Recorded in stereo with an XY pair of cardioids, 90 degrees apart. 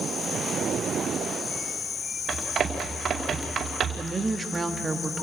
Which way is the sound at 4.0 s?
25° right.